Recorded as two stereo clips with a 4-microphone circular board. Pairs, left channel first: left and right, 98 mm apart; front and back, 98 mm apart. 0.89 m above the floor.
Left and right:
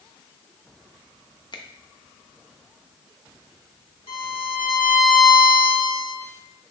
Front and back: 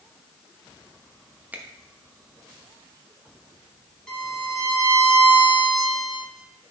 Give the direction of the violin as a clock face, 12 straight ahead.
9 o'clock.